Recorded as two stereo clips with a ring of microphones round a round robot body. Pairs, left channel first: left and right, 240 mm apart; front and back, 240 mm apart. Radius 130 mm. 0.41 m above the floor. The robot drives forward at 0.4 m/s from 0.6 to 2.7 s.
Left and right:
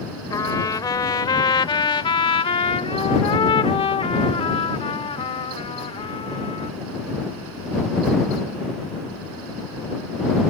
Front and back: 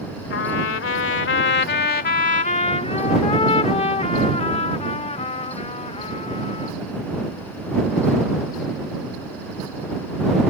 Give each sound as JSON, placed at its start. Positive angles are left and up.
{"t": 0.3, "sound": "a trumpet", "azimuth_deg": 15}